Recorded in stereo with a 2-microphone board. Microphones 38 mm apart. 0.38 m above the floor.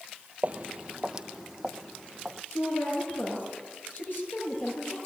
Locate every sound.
0.4 s footsteps: 40° right (ahead or behind), 0.5 m; by 2.4 s centre (ahead or behind), 1.4 m
2.5 s a woman speaking: 55° left (ahead or behind), 7.5 m